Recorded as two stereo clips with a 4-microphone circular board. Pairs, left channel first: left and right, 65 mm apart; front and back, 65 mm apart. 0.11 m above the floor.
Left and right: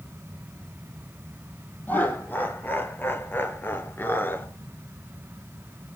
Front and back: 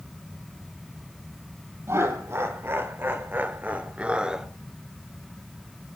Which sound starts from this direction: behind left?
Laughter, at 1.9 s.